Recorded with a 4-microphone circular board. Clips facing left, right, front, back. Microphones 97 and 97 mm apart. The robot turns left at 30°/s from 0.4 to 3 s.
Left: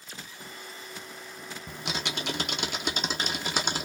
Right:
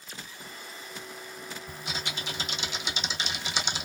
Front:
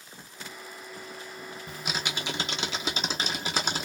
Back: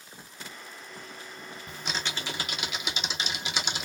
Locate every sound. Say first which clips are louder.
1.7 s typing on a keyboard: left 4 dB, front 1 dB; 90° left, 0.8 m; by 3.9 s 50° left, 0.8 m